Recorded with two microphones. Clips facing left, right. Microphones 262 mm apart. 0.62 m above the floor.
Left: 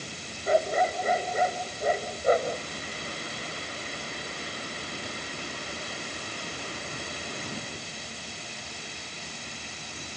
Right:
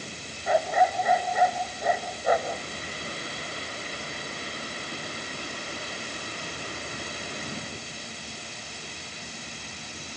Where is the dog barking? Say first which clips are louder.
Even; 30° left (ahead or behind).